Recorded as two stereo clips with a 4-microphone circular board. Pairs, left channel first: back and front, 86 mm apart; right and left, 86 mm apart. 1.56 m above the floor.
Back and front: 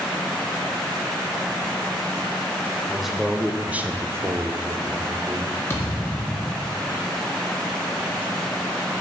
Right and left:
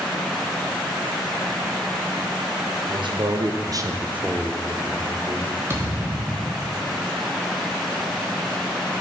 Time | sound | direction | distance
2.9 | a man speaking | 90° left | 1.2 m
5.7 | a thud | 135° left | 1.3 m